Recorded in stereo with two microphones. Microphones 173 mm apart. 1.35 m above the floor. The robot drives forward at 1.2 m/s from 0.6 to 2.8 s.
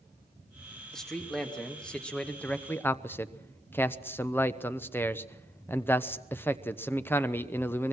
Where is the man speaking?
5° left (ahead or behind), 3 m; by 7.9 s 10° left (ahead or behind), 0.9 m.